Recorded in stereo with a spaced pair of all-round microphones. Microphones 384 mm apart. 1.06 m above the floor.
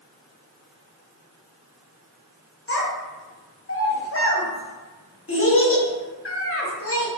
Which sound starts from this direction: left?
A child speaking, at 2.7 s.